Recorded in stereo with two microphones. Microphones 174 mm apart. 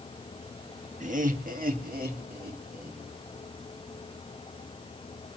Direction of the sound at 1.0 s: 45° right (ahead or behind).